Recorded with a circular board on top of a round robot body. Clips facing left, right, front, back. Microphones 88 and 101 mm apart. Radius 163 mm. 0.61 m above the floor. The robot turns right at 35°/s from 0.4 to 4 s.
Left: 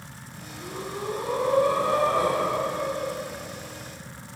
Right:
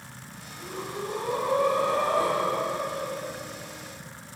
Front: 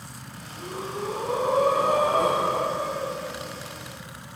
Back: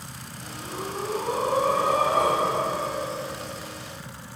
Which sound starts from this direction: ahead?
Breathing, at 0.6 s.